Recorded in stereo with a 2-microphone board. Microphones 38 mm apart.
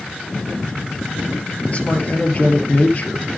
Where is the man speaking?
40° left (ahead or behind), 3 m.